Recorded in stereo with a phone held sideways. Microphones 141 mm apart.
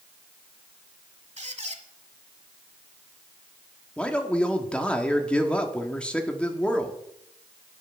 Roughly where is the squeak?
Right.